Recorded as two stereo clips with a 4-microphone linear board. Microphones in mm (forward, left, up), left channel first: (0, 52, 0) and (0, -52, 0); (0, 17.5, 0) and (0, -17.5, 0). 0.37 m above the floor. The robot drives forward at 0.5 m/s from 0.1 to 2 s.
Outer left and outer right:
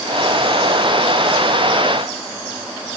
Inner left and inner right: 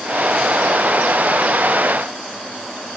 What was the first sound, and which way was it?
Only background noise.